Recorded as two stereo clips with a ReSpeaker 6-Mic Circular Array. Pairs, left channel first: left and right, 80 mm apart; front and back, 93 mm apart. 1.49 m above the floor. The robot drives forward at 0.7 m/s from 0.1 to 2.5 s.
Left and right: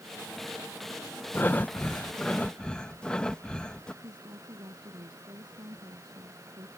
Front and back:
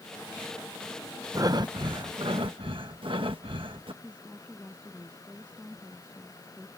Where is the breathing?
145° left; by 3.9 s 165° left.